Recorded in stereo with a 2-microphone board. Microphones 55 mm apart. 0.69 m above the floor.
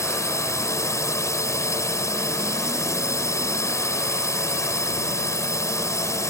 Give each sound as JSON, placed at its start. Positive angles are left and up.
{"t": 0.0, "sound": "a drone", "side_deg": 65}